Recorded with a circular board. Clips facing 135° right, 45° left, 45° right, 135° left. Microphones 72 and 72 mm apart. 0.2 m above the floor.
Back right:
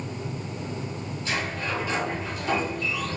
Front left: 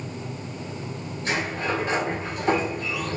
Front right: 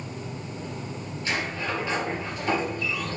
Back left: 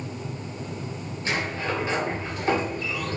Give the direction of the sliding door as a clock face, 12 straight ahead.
10 o'clock.